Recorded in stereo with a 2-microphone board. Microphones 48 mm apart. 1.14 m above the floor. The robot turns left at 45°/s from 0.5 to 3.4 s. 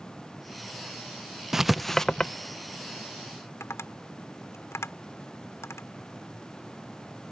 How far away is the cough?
I don't hear a cough.